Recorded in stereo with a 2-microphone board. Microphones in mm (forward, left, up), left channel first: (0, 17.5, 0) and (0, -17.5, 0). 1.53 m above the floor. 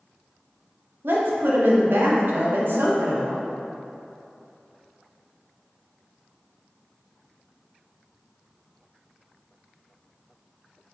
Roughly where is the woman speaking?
Right.